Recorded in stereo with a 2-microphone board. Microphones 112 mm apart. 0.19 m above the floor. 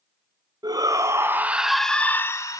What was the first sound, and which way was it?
A shout, 40° right (ahead or behind).